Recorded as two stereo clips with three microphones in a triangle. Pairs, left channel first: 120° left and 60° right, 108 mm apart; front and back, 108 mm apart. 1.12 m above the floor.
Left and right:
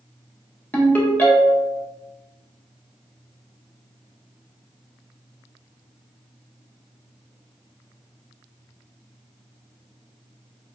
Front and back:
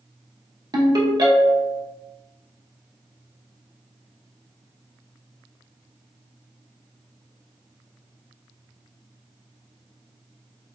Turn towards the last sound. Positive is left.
turn(degrees=-175)